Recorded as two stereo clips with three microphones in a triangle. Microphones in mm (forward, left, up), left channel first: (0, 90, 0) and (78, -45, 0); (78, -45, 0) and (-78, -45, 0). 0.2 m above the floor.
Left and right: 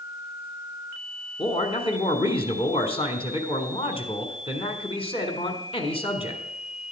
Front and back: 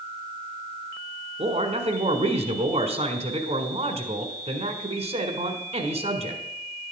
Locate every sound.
1.4 s a man speaking: 155° left, 1.5 m